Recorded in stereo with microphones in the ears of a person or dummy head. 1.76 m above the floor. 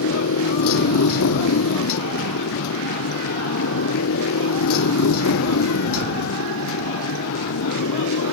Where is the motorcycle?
80° left.